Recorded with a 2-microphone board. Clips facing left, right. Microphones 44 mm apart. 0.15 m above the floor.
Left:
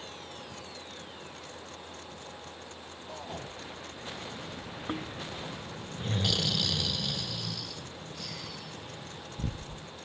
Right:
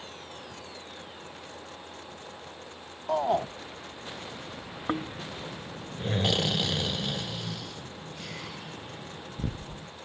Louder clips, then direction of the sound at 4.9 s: Right 5 dB; 35° right (ahead or behind).